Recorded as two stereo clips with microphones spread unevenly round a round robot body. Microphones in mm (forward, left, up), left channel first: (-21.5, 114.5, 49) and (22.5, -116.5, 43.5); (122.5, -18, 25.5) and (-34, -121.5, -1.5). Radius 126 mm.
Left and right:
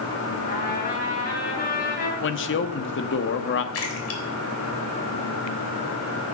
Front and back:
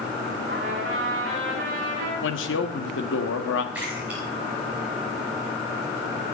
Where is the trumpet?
155° left, 4.5 m.